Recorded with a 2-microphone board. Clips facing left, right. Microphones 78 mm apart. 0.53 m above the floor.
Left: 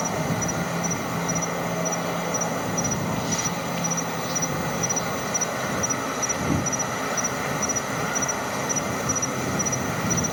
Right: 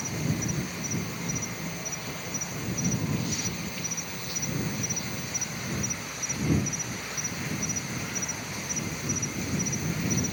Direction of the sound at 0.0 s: 85° left.